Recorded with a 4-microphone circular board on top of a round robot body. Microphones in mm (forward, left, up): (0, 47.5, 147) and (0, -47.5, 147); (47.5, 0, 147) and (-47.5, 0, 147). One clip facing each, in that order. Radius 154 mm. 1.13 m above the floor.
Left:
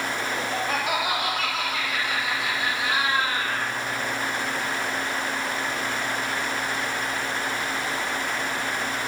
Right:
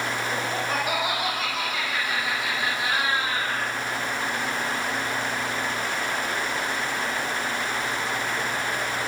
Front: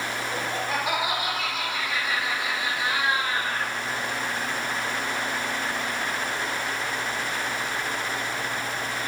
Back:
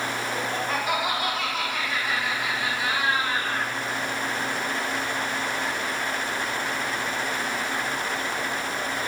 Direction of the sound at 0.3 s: 75° left.